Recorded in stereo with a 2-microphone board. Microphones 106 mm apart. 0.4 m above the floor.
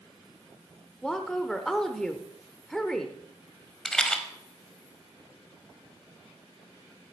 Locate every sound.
1.0 s a woman speaking: 5° left (ahead or behind), 1.0 m
3.9 s a rattle: 5° left (ahead or behind), 1.2 m